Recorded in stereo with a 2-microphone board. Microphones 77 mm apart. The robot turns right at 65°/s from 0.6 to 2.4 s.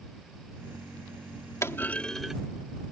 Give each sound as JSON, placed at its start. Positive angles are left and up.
{"t": 1.6, "sound": "a clunk", "azimuth_deg": 140}